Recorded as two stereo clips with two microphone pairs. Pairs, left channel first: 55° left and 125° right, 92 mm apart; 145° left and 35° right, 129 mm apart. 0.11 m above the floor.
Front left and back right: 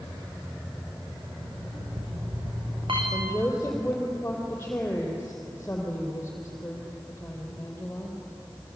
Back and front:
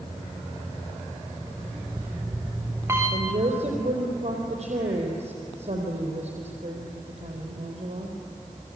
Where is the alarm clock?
105° right, 6 m.